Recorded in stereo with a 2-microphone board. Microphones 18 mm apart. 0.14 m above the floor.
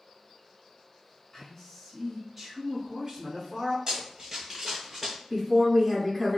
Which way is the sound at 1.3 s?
15° left (ahead or behind).